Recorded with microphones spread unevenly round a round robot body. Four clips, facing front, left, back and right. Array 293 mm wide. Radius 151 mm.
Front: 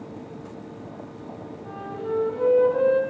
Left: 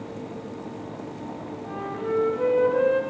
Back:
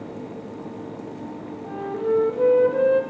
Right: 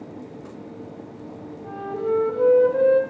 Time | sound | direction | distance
1.6 | a flute | 140° right | 2.5 m